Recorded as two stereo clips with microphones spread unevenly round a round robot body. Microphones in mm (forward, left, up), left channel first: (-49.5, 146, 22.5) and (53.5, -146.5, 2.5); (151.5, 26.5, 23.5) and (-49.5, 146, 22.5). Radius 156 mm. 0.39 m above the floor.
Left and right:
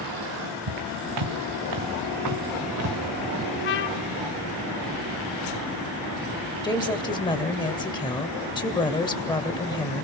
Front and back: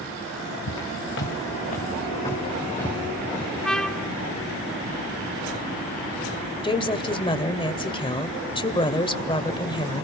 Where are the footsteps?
75° right, 2 m; by 3.5 s 120° right, 3.5 m.